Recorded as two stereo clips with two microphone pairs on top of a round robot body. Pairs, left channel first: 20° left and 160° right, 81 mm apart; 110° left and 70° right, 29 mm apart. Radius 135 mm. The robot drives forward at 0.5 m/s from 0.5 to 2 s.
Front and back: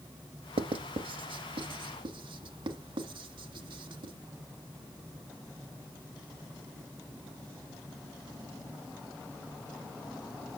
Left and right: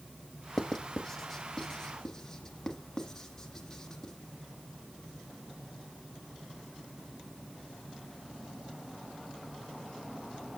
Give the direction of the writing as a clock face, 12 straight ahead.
6 o'clock.